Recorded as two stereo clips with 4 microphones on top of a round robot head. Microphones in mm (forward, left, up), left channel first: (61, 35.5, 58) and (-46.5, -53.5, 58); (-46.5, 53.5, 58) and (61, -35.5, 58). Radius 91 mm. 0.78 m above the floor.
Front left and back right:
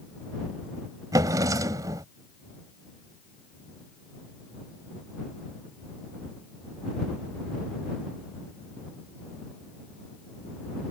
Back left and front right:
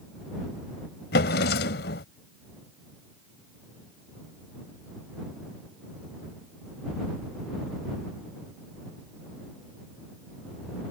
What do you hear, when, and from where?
1.1 s a drawer: 150° left